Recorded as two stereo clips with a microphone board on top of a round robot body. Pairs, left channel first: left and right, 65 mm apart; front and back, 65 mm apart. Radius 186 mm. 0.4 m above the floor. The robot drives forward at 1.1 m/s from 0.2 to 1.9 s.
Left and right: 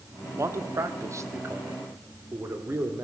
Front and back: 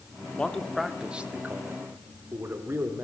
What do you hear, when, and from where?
0.4 s a man speaking: 70° right, 1.7 m; by 3.0 s 135° right, 2 m